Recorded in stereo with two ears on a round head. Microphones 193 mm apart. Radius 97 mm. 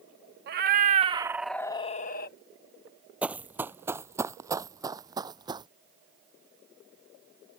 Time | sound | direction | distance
0.5 | a cat meowing | 45° right (ahead or behind) | ?
3.2 | running footsteps | 5° right (ahead or behind) | ?